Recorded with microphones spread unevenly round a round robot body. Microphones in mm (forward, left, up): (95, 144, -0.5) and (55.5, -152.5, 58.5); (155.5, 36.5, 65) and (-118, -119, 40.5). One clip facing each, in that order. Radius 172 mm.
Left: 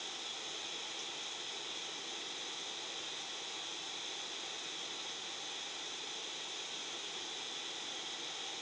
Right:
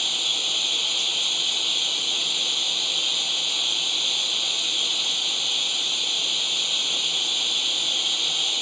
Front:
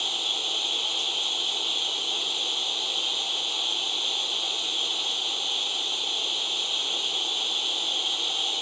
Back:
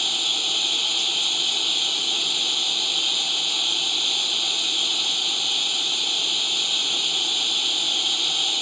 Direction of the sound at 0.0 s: 105° right.